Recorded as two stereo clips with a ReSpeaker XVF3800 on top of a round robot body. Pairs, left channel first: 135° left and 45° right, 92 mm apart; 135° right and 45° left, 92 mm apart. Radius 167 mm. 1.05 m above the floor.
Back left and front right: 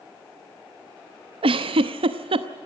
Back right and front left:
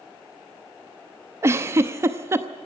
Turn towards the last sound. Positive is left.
turn(degrees=-20)